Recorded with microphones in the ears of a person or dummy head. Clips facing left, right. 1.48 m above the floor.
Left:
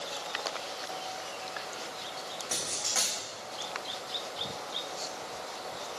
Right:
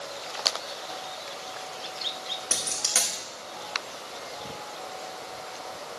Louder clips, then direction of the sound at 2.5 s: Right 2 dB; 45° right (ahead or behind).